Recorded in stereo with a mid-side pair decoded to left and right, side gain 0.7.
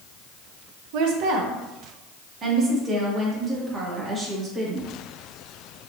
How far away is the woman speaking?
About 1.1 m.